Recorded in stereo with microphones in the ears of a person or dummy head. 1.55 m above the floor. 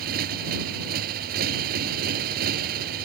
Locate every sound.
0.0 s a motorcycle: 45° right (ahead or behind)